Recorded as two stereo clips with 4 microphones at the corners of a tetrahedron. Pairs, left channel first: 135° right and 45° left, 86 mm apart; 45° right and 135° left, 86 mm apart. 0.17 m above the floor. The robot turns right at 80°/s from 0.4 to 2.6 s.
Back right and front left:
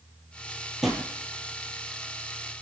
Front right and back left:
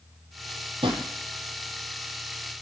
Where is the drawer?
130° left, 1.2 m; by 1.1 s 155° left, 1.2 m.